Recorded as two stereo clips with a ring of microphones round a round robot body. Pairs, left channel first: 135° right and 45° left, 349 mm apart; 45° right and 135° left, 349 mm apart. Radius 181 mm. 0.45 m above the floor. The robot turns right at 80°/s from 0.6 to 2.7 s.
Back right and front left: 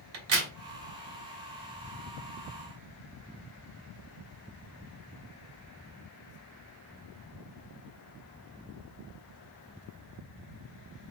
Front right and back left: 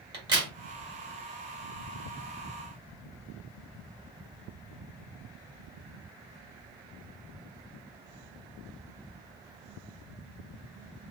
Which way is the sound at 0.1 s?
60° left.